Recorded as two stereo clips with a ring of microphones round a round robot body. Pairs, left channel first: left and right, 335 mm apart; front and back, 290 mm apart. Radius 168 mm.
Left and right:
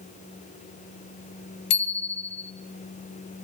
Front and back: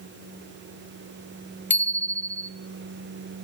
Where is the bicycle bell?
85° left, 2.5 m.